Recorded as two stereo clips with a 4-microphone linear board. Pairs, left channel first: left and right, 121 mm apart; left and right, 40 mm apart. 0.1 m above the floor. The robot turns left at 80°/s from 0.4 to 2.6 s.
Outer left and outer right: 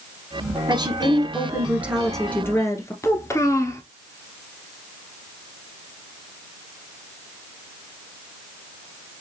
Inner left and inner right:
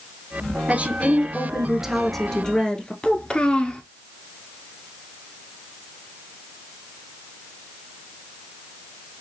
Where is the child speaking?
25° left (ahead or behind), 0.8 m.